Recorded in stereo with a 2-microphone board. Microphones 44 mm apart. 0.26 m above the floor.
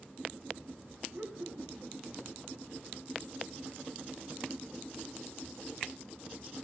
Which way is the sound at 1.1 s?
50° right (ahead or behind).